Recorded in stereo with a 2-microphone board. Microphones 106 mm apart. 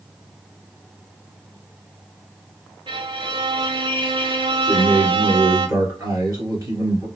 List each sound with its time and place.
2.9 s a violin: 55° right (ahead or behind), 0.5 m
4.7 s a man speaking: 35° right (ahead or behind), 1.9 m